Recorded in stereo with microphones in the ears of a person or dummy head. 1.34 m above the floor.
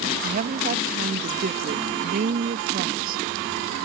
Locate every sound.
0.2 s a woman speaking: 45° right (ahead or behind)